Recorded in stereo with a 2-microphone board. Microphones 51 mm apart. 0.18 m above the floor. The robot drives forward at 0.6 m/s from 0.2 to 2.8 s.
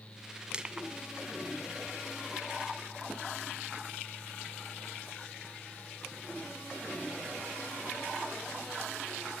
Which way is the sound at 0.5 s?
20° right (ahead or behind).